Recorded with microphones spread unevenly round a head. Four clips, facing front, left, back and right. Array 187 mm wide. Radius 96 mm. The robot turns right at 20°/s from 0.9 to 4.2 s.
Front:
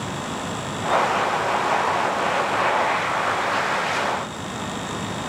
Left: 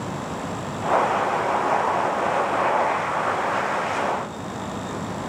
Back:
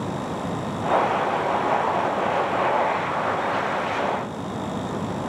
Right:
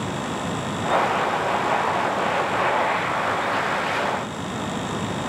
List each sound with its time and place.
Only background noise.